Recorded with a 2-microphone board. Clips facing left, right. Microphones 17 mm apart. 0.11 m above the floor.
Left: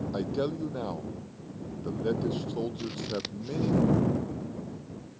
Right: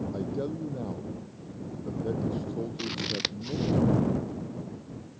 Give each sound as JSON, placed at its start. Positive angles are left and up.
{"t": 0.1, "sound": "a man speaking", "side_deg": 45}
{"t": 2.8, "sound": "scissors", "side_deg": -30}